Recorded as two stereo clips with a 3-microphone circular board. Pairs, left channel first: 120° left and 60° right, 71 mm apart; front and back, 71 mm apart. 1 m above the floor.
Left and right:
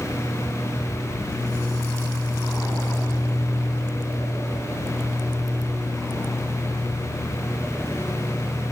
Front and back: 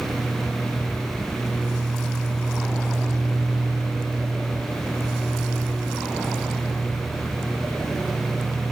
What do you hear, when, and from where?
Only background noise.